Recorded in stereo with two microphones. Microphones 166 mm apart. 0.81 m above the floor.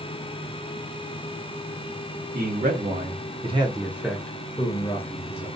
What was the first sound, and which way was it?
A man speaking, 60° right (ahead or behind).